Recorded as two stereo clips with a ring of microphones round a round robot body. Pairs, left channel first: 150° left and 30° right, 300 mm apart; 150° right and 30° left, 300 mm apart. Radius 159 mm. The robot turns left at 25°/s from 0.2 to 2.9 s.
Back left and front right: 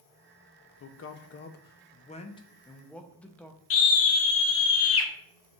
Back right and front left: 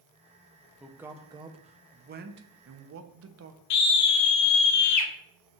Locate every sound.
0.8 s a man speaking: 115° left, 0.5 m; by 3.6 s 65° left, 0.5 m
3.7 s a scream: 170° right, 0.7 m